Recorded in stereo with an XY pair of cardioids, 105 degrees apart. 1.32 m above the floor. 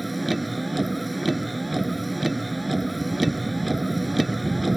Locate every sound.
0.0 s a vehicle: 15° right